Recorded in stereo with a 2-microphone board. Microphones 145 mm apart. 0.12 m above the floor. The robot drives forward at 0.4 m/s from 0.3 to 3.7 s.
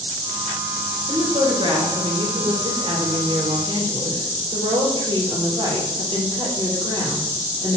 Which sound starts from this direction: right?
A woman speaking, at 1.1 s.